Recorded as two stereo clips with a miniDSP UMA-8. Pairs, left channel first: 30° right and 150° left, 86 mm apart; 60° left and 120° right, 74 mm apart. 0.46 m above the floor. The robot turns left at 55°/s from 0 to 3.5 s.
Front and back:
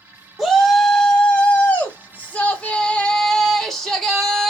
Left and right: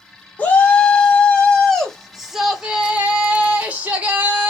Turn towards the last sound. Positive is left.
turn(degrees=-110)